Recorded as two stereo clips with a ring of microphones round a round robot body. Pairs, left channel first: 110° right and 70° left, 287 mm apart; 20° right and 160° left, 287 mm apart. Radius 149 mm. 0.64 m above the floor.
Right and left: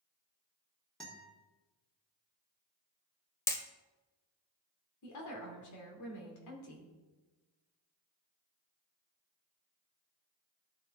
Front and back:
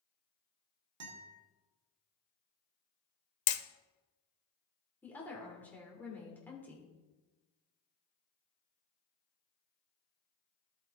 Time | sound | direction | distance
1.0 | a guitar | 160° left | 1.8 m
3.5 | hammering | 30° right | 0.7 m
5.0 | a woman speaking | 105° right | 2.5 m